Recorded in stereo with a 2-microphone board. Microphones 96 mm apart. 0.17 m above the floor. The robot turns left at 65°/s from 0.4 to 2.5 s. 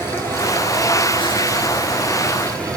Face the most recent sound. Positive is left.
turn(degrees=15)